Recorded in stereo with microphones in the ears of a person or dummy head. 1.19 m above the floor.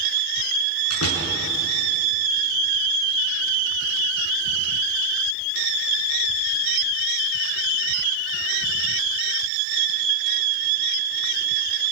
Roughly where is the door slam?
Left.